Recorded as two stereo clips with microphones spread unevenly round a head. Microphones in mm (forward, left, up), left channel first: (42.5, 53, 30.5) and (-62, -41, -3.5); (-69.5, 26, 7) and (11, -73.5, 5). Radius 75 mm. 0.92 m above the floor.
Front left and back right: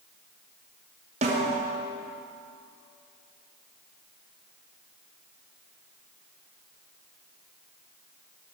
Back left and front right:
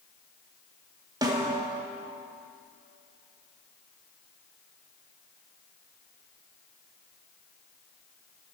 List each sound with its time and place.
1.2 s a snare drum: 105° right, 2 m